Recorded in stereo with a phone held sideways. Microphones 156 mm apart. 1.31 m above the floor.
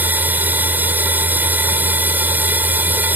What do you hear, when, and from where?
0.0 s a machine running: 10° right (ahead or behind)